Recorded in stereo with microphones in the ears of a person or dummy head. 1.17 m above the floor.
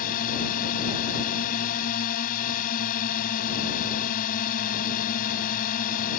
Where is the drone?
40° left (ahead or behind).